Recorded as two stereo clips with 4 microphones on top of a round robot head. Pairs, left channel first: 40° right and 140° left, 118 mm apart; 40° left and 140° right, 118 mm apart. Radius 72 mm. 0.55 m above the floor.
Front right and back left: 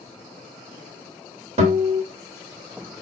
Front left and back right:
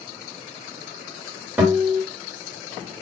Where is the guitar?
150° left, 1.5 m.